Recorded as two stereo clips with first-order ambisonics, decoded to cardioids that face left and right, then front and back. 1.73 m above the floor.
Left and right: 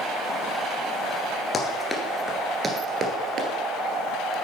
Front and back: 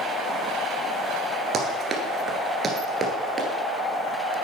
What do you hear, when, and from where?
1.5 s running footsteps: 150° left, 2.0 m; by 3.5 s 110° right, 2.5 m